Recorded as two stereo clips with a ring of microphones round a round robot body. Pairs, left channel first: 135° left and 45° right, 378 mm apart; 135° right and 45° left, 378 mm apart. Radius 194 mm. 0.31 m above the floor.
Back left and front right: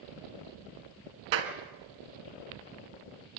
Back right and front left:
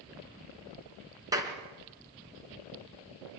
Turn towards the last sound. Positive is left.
turn(degrees=-35)